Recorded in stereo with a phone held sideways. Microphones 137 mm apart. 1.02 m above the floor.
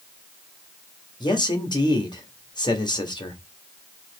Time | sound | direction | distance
1.2 | a man speaking | 35° left (ahead or behind) | 1.4 m